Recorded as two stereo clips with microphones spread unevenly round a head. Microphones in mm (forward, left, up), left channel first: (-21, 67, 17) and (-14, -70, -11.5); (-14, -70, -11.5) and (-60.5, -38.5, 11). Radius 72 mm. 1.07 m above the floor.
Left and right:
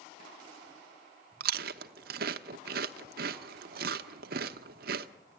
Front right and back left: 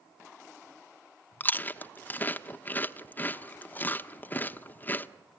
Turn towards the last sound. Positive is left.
turn(degrees=-105)